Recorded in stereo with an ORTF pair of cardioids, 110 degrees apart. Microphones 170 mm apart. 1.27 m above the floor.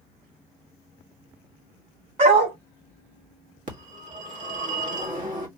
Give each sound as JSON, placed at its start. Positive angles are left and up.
{"t": 2.2, "sound": "a dog barking", "azimuth_deg": -40, "distance_m": 2.0}
{"t": 3.7, "sound": "a phone ringing", "azimuth_deg": -50, "distance_m": 1.7}